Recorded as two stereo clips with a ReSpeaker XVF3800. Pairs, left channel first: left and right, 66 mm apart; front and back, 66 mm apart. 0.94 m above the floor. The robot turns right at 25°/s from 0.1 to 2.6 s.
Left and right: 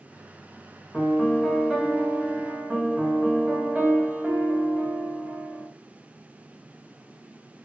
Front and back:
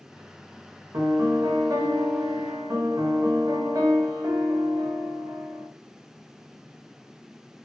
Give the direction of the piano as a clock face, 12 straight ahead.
7 o'clock.